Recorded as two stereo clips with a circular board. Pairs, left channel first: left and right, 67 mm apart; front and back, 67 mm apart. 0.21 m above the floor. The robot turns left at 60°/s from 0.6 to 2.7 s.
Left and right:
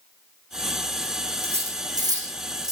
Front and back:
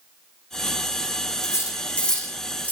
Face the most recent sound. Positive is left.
turn(degrees=-115)